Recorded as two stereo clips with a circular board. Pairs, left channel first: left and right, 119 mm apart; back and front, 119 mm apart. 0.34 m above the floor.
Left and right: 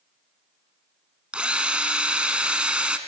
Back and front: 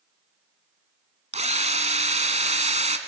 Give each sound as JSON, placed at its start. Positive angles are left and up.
{"t": 1.3, "sound": "a drill", "azimuth_deg": -10, "distance_m": 1.2}